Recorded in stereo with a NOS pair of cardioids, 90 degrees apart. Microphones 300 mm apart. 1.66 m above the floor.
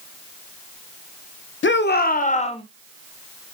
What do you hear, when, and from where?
1.6 s a shout: 40° left, 1.6 m; by 2.6 s 20° left, 2.0 m